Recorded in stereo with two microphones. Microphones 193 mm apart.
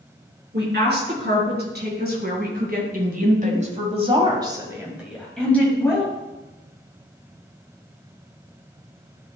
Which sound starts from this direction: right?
A woman speaking, at 0.5 s.